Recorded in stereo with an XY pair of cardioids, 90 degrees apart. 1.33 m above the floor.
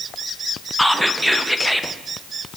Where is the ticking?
I don't hear ticking.